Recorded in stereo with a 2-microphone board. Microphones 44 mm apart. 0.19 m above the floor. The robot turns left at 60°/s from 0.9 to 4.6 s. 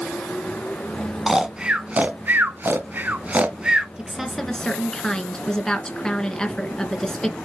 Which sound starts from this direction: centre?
Snoring, at 1.3 s.